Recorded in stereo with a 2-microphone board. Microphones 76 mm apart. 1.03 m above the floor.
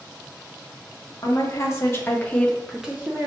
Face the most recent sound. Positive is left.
turn(degrees=-25)  # may be behind; listen again after turning